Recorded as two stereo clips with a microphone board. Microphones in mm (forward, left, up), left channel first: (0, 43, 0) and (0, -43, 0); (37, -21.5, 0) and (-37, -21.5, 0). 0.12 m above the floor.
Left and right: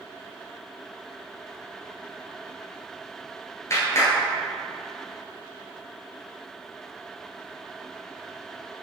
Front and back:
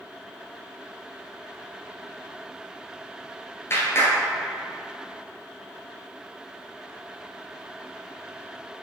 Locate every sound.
3.7 s a clap: 45° left, 1.5 m